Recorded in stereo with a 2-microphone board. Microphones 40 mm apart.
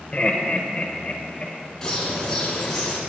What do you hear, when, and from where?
0.1 s laughter: 30° left (ahead or behind), 1.0 m; by 1.5 s 25° left (ahead or behind), 1.1 m
1.8 s a bird: 10° left (ahead or behind), 2.5 m